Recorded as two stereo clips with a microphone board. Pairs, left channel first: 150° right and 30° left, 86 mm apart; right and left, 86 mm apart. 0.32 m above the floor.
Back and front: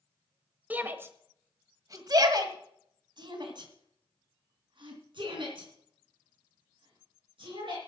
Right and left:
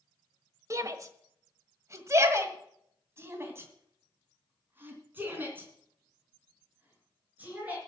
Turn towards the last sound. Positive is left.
turn(degrees=20)